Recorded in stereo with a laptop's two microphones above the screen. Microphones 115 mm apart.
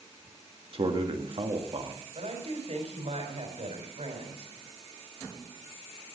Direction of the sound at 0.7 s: 50° right (ahead or behind).